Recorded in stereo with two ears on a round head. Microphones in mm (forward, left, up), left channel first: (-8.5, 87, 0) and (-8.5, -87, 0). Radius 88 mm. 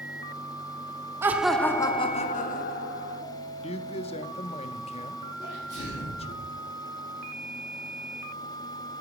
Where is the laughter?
15° right (ahead or behind), 0.8 m; by 3.2 s 60° left (ahead or behind), 1.4 m.